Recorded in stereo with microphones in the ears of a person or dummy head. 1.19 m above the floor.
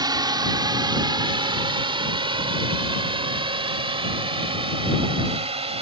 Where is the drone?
20° right (ahead or behind); by 5.8 s 30° right (ahead or behind).